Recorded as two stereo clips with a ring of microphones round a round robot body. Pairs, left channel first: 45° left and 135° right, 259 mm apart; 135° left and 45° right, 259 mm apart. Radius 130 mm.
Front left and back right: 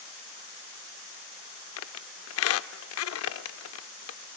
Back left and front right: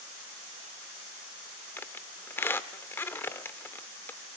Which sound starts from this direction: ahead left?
A squeak, at 1.8 s.